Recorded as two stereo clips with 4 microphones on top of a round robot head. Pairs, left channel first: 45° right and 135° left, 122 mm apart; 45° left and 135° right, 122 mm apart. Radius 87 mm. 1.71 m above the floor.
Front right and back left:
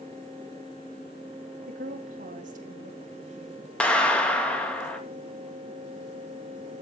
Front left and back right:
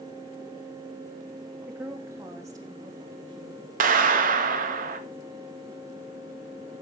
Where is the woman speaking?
145° left, 3 m; by 3.7 s 175° left, 3 m.